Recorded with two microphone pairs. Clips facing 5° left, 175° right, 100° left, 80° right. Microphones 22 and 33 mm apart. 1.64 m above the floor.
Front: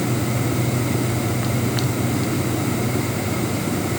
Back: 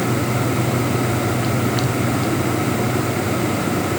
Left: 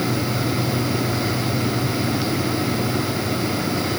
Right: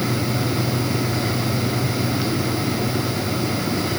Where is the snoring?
No snoring in this recording.